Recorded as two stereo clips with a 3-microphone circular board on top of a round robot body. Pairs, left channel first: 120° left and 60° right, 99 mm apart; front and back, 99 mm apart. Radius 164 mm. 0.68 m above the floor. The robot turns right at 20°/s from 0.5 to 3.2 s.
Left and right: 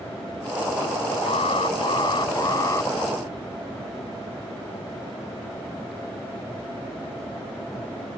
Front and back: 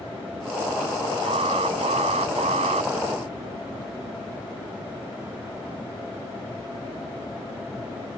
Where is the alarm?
150° left; by 2.9 s 175° right.